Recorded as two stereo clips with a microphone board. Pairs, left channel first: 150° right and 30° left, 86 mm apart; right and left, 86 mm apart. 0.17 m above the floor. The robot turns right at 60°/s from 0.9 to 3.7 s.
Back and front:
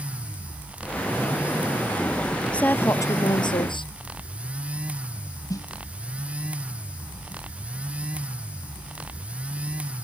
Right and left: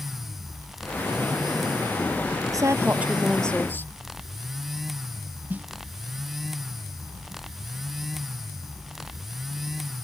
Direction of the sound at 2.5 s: 135° left.